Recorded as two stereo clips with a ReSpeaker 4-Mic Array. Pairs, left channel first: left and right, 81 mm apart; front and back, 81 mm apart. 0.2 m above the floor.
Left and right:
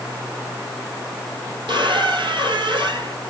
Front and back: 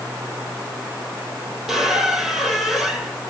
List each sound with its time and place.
1.7 s a squeak: 90° right, 1.5 m